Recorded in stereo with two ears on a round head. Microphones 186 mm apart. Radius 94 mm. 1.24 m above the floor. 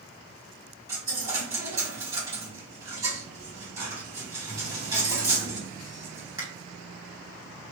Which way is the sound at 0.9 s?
20° right (ahead or behind).